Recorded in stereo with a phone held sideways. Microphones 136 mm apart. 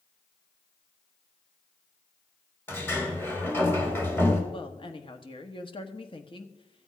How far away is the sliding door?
About 2.5 m.